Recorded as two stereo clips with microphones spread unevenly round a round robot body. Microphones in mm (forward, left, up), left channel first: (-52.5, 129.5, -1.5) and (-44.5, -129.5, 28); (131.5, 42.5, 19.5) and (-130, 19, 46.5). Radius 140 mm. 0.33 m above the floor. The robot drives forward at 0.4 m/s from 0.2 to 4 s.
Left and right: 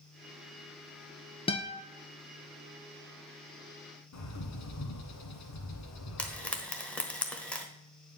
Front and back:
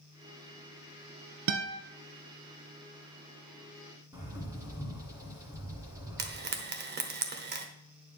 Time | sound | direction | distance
1.5 | a guitar | 165° left | 1.1 m
4.1 | a bird | 105° left | 1.8 m
6.2 | frying | 165° left | 1.2 m